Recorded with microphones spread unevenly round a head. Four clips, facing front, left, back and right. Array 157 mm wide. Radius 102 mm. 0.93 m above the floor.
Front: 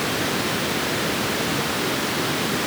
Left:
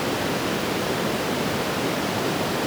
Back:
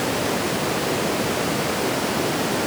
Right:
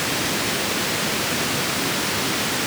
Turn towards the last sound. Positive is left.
No sound to turn to.